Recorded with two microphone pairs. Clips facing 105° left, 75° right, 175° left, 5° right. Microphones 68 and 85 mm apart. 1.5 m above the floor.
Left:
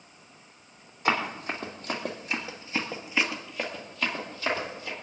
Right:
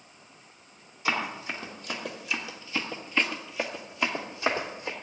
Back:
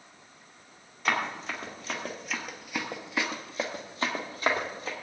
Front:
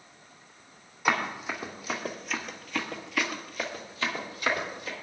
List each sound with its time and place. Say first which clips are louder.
1.1 s running footsteps: left 3 dB, front 2 dB; 70° left, 3.5 m; by 4.9 s 135° right, 3.5 m